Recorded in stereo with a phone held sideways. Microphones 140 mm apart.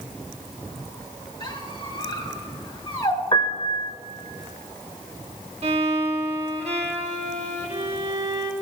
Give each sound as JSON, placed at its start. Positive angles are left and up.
{"t": 1.4, "sound": "a squeak", "side_deg": 35, "distance_m": 2.0}
{"t": 3.3, "sound": "a piano", "side_deg": 35, "distance_m": 1.1}
{"t": 5.6, "sound": "a violin", "side_deg": -45, "distance_m": 1.2}